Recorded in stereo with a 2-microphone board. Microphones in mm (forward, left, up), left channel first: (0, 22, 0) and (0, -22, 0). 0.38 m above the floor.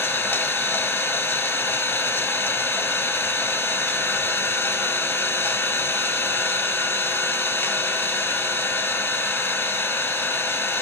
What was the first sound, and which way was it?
An engine running, 55° left (ahead or behind).